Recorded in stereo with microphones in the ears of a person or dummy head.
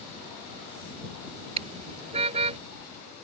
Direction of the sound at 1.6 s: 35° right (ahead or behind).